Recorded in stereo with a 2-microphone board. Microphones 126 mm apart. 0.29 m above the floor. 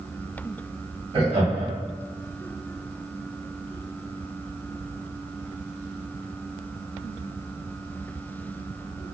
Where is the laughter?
50° right (ahead or behind), 1.4 m.